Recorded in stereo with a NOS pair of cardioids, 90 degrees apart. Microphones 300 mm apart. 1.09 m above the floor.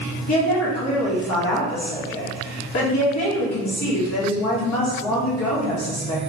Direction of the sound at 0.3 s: 65° left.